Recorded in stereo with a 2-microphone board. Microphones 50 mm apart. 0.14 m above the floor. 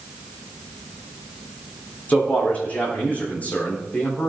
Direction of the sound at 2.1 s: 30° left (ahead or behind).